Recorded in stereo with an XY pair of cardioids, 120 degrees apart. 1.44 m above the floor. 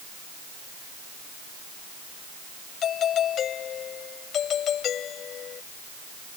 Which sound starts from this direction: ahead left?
A doorbell, at 2.8 s.